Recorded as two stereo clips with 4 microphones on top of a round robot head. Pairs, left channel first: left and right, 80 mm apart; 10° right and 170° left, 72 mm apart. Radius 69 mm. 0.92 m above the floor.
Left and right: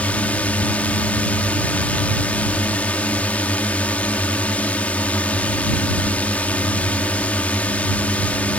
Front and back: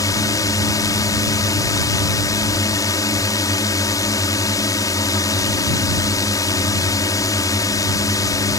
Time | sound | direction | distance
0.0 | a drone | 15° left | ?